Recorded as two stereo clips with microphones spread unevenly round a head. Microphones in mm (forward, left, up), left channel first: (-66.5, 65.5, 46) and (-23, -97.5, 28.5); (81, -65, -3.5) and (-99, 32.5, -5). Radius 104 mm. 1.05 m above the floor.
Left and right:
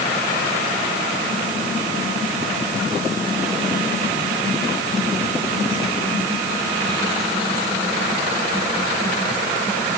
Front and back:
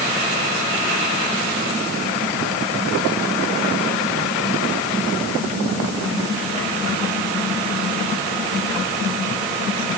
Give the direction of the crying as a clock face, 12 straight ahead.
I don't hear crying.